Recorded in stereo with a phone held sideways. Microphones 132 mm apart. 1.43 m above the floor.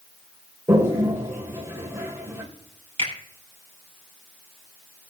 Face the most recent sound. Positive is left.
turn(degrees=-45)  # may be behind; listen again after turning